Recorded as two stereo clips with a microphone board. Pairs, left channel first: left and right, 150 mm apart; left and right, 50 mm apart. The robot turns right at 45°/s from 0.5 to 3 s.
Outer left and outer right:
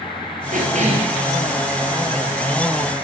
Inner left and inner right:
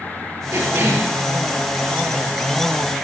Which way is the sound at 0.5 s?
60° right (ahead or behind).